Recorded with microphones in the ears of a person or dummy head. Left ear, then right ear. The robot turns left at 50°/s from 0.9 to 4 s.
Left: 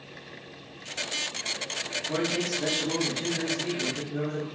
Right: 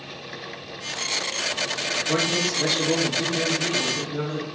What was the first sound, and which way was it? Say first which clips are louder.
A man speaking: right 5 dB; 60° right.